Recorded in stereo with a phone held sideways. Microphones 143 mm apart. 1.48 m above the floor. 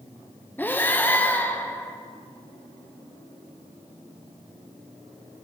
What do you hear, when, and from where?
0.6 s breathing: 15° left (ahead or behind), 0.7 m